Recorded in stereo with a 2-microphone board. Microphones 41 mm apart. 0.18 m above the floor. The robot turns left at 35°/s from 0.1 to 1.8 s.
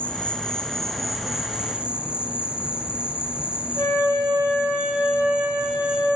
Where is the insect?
35° left, 0.7 m; by 6.2 s 25° right, 0.7 m.